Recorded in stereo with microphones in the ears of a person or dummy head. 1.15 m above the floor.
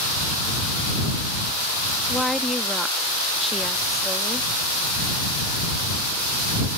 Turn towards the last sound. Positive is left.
turn(degrees=0)  # may be behind; listen again after turning